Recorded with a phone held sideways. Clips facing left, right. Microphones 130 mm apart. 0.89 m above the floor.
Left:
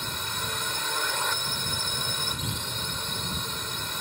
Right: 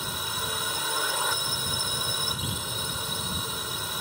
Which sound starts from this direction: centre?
A drone, at 0.0 s.